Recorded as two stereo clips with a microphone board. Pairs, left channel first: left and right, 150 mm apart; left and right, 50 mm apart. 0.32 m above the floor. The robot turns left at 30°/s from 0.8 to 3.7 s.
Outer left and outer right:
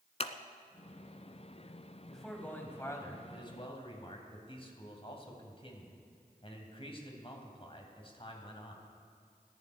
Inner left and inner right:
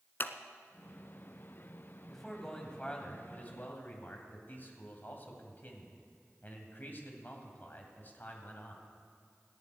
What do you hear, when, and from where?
0.2 s scissors: 45° left (ahead or behind), 0.8 m
2.1 s a man speaking: straight behind, 2.5 m; by 8.8 s 130° left, 2.5 m